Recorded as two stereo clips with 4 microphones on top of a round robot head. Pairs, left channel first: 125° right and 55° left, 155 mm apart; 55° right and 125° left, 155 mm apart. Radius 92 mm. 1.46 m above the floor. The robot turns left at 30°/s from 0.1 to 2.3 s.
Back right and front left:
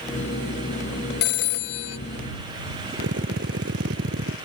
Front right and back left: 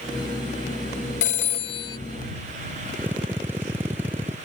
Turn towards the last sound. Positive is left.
turn(degrees=45)